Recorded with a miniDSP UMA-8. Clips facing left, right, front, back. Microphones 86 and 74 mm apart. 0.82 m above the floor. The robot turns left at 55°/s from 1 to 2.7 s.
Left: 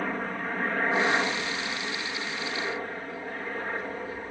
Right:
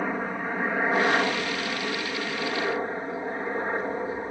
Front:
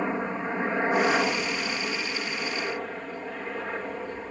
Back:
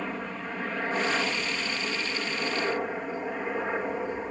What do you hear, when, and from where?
0.0 s a helicopter: 25° right; by 4.3 s 120° right